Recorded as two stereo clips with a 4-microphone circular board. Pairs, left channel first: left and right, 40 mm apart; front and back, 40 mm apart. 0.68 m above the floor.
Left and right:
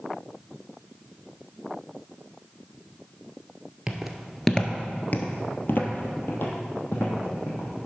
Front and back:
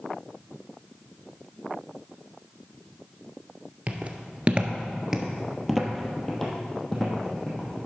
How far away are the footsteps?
About 0.8 m.